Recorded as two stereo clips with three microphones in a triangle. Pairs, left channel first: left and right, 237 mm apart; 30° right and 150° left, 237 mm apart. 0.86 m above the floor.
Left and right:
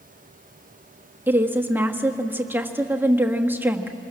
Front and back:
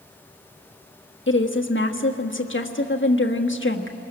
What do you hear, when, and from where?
1.3 s a woman speaking: 10° right, 1.4 m